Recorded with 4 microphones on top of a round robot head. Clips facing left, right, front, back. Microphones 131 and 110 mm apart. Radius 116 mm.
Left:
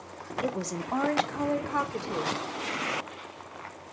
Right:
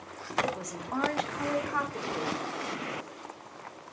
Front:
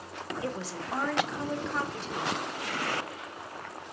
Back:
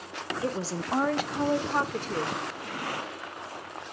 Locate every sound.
0.4 s a woman speaking: 130° left, 1.6 m; by 2.4 s 155° left, 3 m